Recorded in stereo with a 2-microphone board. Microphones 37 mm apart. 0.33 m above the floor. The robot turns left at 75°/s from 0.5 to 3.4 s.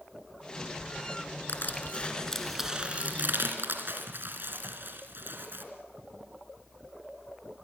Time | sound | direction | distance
1.5 | crushing | 70° left (ahead or behind) | 3 m